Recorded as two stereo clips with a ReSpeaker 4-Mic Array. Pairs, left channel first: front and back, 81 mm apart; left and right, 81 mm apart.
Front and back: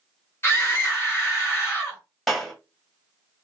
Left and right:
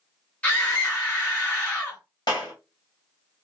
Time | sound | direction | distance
0.4 | a scream | 30° left | 1.5 m
2.3 | a clap | 85° left | 1.8 m